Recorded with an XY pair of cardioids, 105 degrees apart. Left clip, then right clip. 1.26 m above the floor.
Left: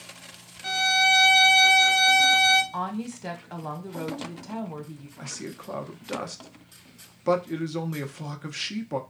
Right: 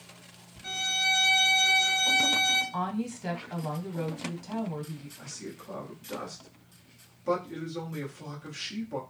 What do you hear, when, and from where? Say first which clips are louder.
0.6 s a violin: left 7 dB; 60° left, 0.5 m
2.7 s a woman speaking: left 1 dB; 15° left, 0.9 m
5.2 s a man speaking: left 7 dB; 65° left, 0.6 m